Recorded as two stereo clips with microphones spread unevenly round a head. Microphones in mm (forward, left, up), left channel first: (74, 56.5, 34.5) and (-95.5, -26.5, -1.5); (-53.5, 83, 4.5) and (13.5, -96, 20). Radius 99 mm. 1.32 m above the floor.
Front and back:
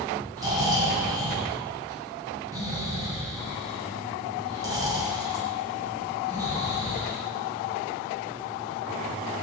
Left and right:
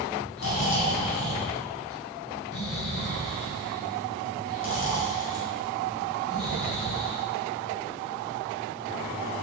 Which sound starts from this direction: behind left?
Snoring, at 0.4 s.